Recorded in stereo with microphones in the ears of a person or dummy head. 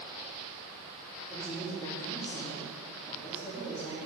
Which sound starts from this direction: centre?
A woman speaking, at 1.3 s.